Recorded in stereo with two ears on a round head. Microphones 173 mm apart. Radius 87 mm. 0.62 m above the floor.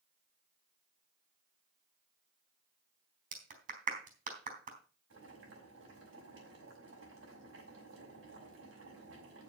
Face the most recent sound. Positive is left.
turn(degrees=-70)  # may be behind; listen again after turning